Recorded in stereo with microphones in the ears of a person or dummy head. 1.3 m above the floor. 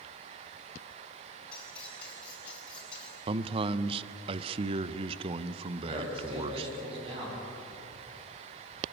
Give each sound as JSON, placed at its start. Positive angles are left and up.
{"t": 1.5, "sound": "cutlery clinking", "side_deg": 10, "distance_m": 6.0}
{"t": 3.3, "sound": "a man speaking", "side_deg": -35, "distance_m": 0.7}
{"t": 5.8, "sound": "a man speaking", "side_deg": -35, "distance_m": 8.5}